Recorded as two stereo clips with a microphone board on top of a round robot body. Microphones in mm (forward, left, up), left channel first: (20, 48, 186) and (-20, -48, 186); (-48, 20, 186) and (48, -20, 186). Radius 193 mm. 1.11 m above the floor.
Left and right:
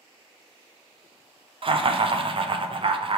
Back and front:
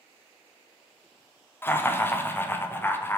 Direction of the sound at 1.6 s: 135° right.